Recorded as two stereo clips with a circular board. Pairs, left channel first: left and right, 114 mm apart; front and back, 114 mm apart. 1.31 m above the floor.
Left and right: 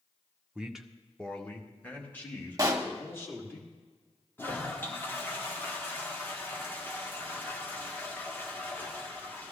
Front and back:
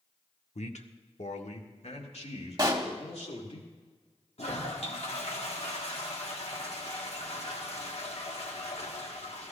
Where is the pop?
140° right, 1.2 m.